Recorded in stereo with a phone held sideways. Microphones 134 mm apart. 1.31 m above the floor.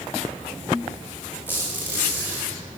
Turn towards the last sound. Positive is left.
turn(degrees=-15)  # may be behind; listen again after turning